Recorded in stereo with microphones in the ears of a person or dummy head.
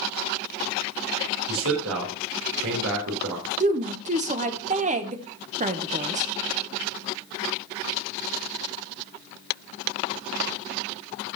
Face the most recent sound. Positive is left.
turn(degrees=-40)  # may be behind; listen again after turning